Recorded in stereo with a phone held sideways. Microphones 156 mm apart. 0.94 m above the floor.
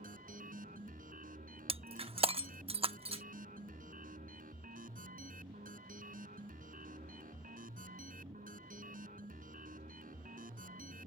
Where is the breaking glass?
40° right (ahead or behind).